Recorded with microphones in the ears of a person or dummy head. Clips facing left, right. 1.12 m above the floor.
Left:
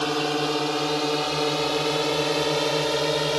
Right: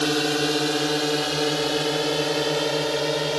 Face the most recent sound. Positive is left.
turn(degrees=0)  # may be behind; listen again after turning